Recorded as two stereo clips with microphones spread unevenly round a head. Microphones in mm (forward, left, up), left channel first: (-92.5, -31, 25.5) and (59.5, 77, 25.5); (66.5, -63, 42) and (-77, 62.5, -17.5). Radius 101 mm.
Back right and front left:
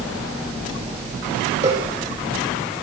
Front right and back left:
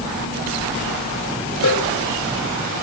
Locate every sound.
1.6 s a cowbell: 30° right, 8.5 m